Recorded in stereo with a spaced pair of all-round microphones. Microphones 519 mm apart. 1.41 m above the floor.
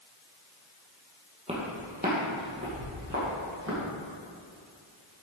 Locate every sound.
1.5 s footsteps: 10° right (ahead or behind), 2.5 m; by 3.8 s 30° right (ahead or behind), 4 m